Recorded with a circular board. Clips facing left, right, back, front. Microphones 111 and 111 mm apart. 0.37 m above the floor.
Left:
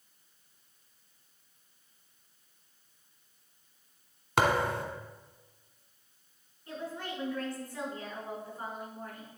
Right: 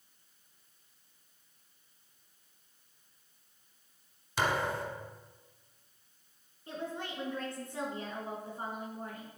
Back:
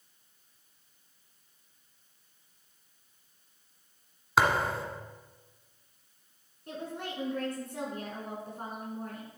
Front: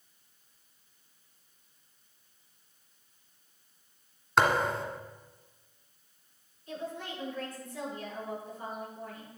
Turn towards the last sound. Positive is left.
turn(degrees=-155)